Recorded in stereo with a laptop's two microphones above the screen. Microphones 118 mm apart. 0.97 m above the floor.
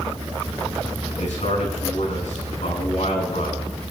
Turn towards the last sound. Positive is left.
turn(degrees=85)